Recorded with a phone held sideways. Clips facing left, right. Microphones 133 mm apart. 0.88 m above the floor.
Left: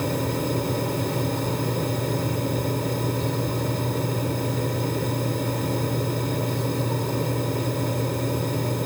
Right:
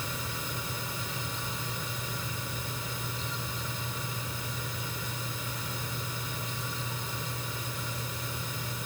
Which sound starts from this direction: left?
A fan, at 0.0 s.